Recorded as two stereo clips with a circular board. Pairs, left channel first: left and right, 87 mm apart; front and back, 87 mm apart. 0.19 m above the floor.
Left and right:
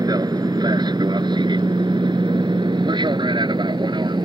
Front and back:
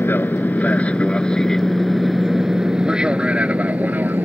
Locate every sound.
0.0 s an aircraft: 60° right; by 4.2 s 115° right